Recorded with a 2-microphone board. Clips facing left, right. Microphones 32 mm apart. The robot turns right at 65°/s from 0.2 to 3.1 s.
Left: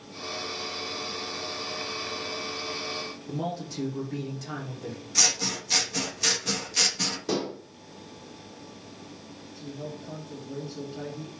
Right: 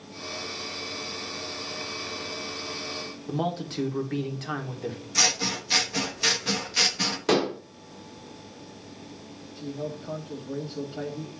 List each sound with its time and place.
3.3 s a man speaking: 55° right (ahead or behind), 1.4 m
5.2 s scissors: 15° right (ahead or behind), 0.8 m
7.3 s dishes clattering: 80° right, 0.6 m
9.6 s a man speaking: 45° right (ahead or behind), 1.4 m